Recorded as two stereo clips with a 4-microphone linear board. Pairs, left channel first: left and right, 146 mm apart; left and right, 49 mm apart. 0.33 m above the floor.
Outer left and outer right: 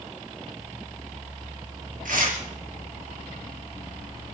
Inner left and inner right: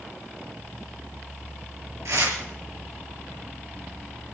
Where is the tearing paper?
75° right (ahead or behind), 4.5 m.